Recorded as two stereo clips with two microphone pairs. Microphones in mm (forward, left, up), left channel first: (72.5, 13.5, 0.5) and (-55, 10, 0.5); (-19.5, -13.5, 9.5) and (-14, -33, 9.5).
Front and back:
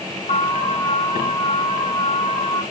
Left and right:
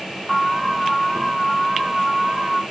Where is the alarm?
20° right, 5 m.